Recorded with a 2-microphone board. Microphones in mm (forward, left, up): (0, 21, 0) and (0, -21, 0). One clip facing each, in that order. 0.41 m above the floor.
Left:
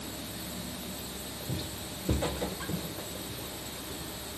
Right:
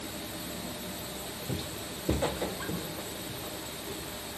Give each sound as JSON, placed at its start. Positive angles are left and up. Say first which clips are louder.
{"t": 1.5, "sound": "footsteps", "louder": "right 1 dB", "side_deg": -20, "distance_m": 0.7}